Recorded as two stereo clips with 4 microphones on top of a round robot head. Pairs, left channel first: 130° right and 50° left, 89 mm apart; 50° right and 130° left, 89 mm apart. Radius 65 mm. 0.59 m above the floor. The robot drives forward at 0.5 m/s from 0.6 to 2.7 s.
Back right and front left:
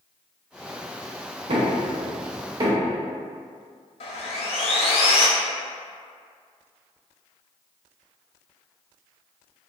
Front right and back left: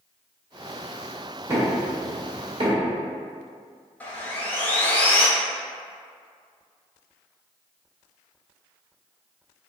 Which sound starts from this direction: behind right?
Sawing, at 4.0 s.